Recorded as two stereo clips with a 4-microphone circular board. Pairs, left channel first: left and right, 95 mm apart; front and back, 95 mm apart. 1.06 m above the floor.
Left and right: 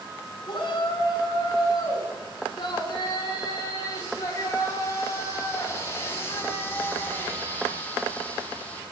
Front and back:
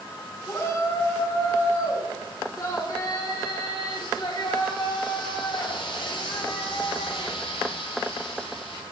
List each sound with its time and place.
0.5 s a shout: 55° left, 9 m; by 8.8 s 15° left, 8 m